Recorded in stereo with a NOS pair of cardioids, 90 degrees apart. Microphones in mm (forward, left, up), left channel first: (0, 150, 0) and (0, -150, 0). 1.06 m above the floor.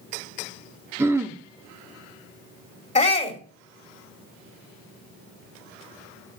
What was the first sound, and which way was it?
Throat clearing, 10° right.